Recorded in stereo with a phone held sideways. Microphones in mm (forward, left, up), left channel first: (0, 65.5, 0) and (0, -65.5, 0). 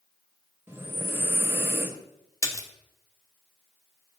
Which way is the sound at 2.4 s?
25° left (ahead or behind).